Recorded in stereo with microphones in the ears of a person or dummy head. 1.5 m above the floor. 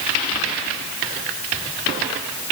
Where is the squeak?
I don't hear a squeak.